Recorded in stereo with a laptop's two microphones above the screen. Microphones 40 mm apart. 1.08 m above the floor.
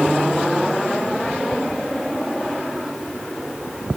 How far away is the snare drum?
No snare drum in this recording.